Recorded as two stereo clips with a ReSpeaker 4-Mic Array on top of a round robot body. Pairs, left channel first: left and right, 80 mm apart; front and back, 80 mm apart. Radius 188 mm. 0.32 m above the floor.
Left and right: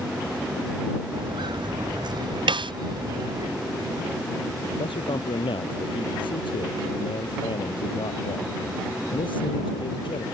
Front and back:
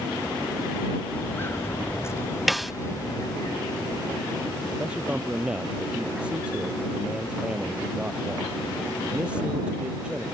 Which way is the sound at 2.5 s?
90° right.